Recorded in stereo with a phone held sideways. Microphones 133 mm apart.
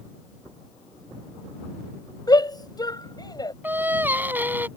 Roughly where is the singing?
Centre.